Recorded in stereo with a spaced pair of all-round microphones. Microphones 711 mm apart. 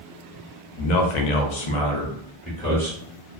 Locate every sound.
0.8 s a man speaking: 80° left, 0.8 m; by 3.0 s centre (ahead or behind), 1.1 m